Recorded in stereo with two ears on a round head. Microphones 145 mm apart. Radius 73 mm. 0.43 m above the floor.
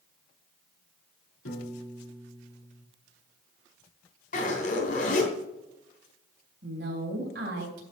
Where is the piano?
75° left (ahead or behind), 3.5 m.